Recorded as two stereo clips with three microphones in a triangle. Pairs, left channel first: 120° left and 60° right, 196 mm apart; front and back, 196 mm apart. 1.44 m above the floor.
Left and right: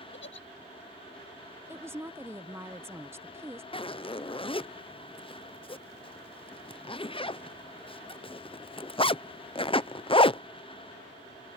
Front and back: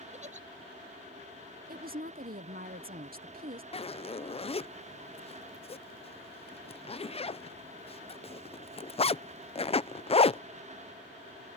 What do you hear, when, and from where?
0.1 s a giggle: 130° left
1.7 s a woman speaking: 135° right
3.7 s a zipper: 55° left